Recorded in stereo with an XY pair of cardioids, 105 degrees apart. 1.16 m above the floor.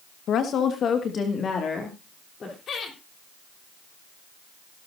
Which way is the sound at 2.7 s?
55° left.